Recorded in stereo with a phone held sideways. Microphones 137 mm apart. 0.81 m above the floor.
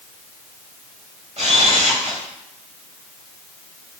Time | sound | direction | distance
1.4 | a camera shutter | 55° right (ahead or behind) | 1.3 m